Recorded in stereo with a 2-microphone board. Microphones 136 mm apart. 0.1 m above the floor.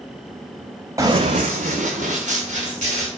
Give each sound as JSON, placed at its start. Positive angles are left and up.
{"t": 1.0, "sound": "running footsteps", "side_deg": -25, "distance_m": 0.6}